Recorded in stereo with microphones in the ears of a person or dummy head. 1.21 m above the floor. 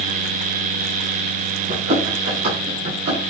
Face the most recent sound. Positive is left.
turn(degrees=-60)  # may be behind; listen again after turning